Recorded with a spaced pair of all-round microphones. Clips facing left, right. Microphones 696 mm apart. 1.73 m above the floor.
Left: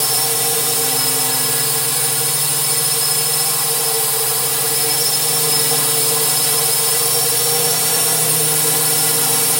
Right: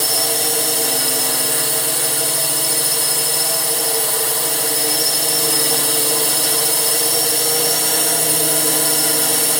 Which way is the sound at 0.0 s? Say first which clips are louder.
Right 1 dB; 35° left (ahead or behind).